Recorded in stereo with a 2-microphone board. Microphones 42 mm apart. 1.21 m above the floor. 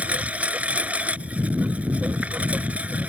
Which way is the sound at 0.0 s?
35° right (ahead or behind).